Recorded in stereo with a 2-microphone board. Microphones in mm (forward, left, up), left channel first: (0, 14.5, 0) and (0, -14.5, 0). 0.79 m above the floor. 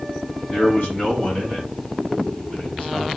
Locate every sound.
0.5 s a man speaking: 50° left (ahead or behind), 1.8 m; by 3.1 s 65° left (ahead or behind), 4 m